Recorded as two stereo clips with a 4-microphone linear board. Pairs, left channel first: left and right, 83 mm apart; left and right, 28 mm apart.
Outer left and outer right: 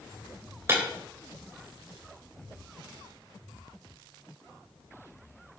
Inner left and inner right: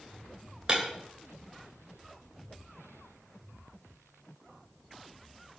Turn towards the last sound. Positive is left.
turn(degrees=-30)  # may be behind; listen again after turning